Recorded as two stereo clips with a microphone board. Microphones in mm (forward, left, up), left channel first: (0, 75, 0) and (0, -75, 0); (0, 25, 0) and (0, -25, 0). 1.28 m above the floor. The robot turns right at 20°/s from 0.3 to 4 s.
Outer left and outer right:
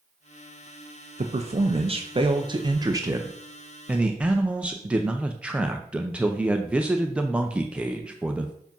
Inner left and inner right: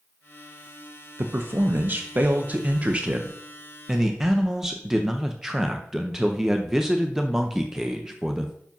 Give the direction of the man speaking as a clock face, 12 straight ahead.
2 o'clock.